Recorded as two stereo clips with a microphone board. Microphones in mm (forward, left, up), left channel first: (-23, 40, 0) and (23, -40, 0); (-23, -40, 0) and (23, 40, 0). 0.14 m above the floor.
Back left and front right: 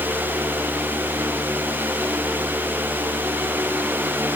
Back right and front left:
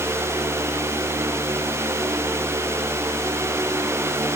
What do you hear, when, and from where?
Only background noise.